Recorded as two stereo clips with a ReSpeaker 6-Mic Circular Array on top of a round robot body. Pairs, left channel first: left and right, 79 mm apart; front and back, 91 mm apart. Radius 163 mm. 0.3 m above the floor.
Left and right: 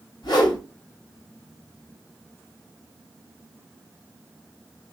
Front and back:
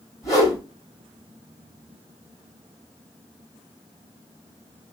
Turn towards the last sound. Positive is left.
turn(degrees=55)